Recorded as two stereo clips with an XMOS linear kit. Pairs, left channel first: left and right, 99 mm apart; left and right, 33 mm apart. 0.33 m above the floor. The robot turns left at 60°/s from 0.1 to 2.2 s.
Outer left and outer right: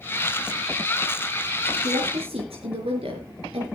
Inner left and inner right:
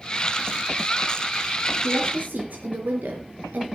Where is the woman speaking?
60° right (ahead or behind), 4.5 m; by 3.6 s 80° right, 4.5 m.